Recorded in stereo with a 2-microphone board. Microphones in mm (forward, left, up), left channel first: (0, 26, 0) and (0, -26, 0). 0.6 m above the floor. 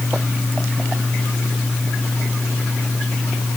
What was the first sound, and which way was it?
Only background noise.